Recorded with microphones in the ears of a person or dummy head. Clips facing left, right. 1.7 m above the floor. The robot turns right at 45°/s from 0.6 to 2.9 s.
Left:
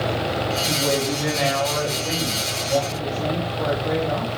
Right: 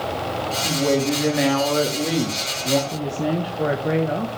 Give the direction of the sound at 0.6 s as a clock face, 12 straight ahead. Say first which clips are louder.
Right 6 dB; 5 o'clock.